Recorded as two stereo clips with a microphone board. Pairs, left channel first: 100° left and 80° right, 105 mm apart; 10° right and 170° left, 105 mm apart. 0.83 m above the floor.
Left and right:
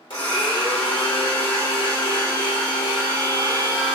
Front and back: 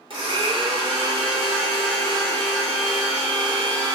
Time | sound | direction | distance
0.1 | a blender | 135° left | 1.1 m